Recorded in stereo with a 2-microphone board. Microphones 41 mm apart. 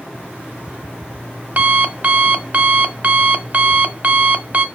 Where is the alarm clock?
45° right (ahead or behind), 1.2 m.